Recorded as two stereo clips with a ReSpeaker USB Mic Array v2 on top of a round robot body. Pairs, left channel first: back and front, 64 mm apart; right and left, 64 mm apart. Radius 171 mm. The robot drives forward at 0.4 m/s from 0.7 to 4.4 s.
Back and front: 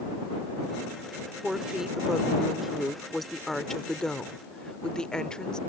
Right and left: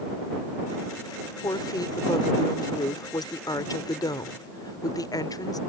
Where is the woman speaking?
80° right; by 5.6 s 100° right.